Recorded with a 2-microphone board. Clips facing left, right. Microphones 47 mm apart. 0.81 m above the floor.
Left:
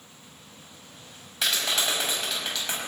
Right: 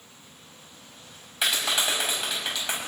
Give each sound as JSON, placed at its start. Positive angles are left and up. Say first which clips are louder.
{"t": 1.4, "sound": "a clap", "louder": "right 1 dB", "side_deg": -15, "distance_m": 5.0}